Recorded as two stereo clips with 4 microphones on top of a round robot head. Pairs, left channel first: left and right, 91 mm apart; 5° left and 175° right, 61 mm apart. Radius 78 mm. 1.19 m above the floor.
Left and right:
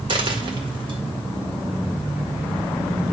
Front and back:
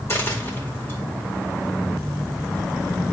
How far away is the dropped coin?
About 1.9 m.